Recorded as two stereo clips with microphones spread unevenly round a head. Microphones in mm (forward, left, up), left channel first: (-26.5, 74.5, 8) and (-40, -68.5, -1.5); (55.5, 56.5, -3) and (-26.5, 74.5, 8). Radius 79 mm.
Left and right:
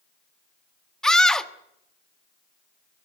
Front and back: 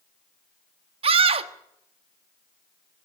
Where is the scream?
170° left, 1.4 m.